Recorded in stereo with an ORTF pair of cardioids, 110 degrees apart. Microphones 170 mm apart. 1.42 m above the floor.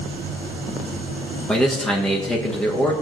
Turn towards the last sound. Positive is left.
turn(degrees=5)